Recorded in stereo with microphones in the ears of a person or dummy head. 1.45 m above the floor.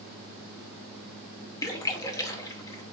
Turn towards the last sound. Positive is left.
turn(degrees=20)  # may be behind; listen again after turning